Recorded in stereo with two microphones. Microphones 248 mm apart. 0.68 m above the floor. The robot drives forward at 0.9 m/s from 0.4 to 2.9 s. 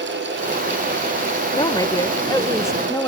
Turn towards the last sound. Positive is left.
turn(degrees=10)  # may be behind; listen again after turning